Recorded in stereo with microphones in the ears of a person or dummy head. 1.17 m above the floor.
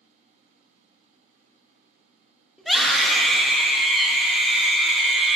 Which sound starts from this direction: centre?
A scream, at 2.6 s.